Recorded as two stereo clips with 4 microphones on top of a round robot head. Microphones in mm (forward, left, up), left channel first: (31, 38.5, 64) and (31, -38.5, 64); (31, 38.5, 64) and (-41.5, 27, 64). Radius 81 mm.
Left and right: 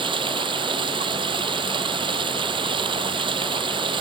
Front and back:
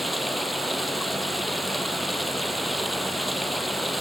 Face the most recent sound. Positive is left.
turn(degrees=-80)